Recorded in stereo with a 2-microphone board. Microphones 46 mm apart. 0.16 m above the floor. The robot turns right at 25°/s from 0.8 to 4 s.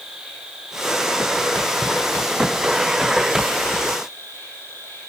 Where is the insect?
15° right, 6 m; by 5.1 s 65° left, 6 m.